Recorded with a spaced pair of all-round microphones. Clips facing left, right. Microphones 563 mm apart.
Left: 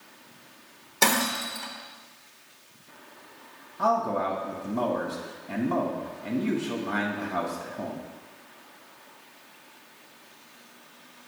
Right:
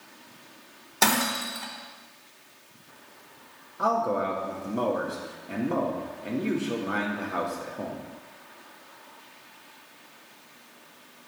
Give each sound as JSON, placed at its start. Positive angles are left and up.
{"t": 1.0, "sound": "breaking glass", "side_deg": -5, "distance_m": 1.2}
{"t": 3.8, "sound": "a man speaking", "side_deg": 20, "distance_m": 1.7}